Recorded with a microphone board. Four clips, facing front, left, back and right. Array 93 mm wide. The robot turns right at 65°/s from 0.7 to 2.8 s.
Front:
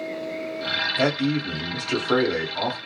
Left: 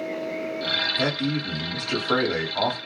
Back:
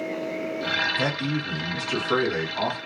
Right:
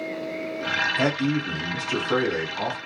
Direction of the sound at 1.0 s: 30° right.